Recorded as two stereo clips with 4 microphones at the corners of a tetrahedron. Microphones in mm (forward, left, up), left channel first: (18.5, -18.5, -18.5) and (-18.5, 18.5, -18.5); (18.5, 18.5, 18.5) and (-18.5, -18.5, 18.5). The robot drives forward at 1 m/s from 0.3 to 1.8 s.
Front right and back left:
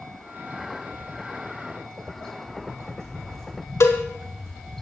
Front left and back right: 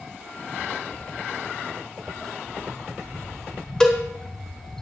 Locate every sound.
0.9 s footsteps: 75° left, 1.4 m; by 4.8 s 130° left, 3.5 m
3.8 s a cowbell: 30° right, 1.4 m